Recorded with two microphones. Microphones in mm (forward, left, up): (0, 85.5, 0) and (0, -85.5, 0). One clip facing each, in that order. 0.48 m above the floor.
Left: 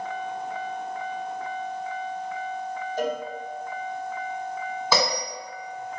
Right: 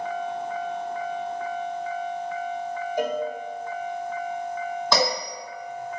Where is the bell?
10° left (ahead or behind), 1.4 m.